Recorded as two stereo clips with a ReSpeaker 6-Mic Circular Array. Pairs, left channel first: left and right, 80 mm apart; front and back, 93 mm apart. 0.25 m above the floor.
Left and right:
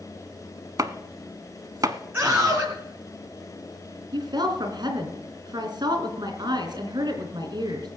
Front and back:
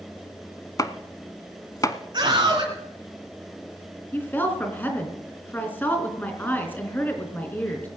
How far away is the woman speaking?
About 3.5 m.